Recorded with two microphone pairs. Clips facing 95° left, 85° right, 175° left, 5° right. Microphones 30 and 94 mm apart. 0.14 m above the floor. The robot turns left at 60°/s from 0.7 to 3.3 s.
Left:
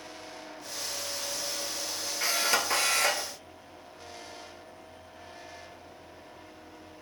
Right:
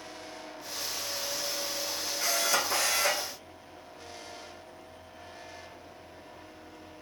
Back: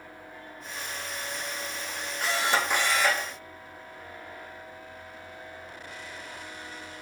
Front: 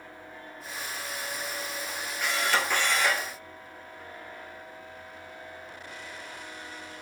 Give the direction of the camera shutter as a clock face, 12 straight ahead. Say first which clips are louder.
Left 1 dB, back 1 dB; 7 o'clock.